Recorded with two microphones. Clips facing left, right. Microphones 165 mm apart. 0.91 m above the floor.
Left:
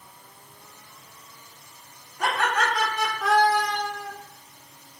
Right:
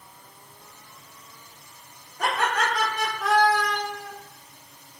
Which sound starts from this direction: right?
Laughter, at 2.2 s.